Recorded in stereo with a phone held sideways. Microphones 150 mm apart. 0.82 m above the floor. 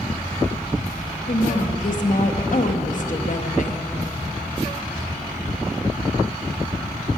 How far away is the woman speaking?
About 0.8 m.